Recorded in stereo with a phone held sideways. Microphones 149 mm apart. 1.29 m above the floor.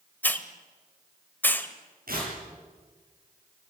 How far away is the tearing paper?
About 8.5 m.